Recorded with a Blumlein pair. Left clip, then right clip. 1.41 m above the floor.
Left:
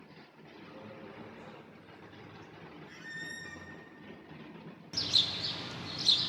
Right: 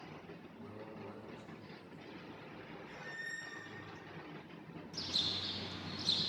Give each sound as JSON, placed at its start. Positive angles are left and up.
{"t": 0.6, "sound": "a man speaking", "azimuth_deg": -20, "distance_m": 4.0}
{"t": 2.9, "sound": "a squeak", "azimuth_deg": 30, "distance_m": 1.1}
{"t": 4.9, "sound": "a bird", "azimuth_deg": 40, "distance_m": 0.7}